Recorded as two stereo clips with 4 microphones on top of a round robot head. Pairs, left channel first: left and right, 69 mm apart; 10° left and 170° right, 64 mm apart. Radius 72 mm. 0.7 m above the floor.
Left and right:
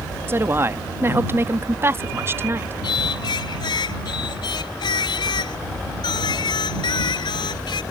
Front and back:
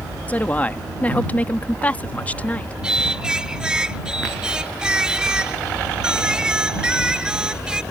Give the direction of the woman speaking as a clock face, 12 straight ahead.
2 o'clock.